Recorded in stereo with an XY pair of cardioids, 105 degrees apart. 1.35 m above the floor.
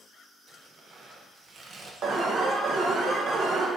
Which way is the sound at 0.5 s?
40° right.